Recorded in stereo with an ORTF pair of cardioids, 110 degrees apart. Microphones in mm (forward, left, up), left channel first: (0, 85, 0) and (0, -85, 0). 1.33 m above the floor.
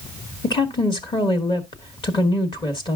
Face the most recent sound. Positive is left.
turn(degrees=25)